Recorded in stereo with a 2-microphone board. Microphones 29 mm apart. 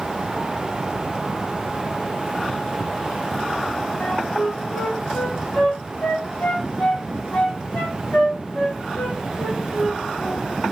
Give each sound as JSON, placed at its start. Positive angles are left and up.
{"t": 4.0, "sound": "a flute", "side_deg": 85, "distance_m": 5.0}